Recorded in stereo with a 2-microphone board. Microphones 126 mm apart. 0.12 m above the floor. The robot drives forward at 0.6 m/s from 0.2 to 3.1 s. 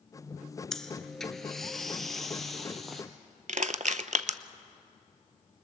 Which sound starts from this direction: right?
Crushing, at 3.5 s.